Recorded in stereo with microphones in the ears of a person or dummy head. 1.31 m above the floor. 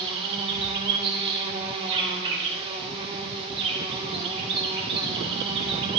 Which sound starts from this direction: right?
An insect, at 0.0 s.